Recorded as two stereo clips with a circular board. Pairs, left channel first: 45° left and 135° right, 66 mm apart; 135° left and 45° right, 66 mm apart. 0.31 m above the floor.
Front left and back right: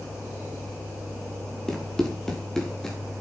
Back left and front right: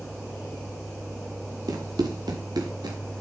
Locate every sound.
1.7 s running footsteps: 35° right, 2.5 m